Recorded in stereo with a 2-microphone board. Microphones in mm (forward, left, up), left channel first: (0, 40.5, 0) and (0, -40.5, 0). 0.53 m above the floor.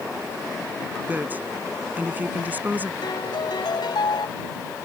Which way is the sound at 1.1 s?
25° right (ahead or behind).